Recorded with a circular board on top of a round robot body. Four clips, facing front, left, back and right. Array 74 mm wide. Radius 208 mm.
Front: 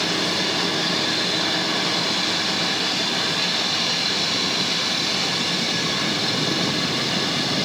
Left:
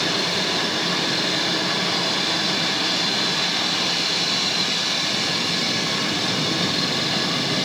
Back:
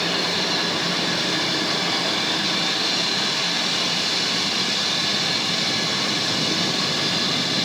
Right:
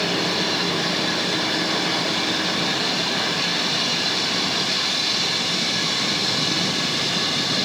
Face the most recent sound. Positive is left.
No sound to turn to.